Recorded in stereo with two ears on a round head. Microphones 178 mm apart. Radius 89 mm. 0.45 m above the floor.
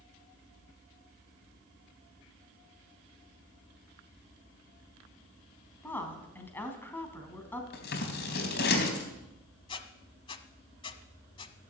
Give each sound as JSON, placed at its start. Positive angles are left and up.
{"t": 5.8, "sound": "a woman speaking", "side_deg": 10, "distance_m": 3.0}
{"t": 7.7, "sound": "scissors", "side_deg": 60, "distance_m": 3.5}
{"t": 9.7, "sound": "a squeak", "side_deg": 25, "distance_m": 1.0}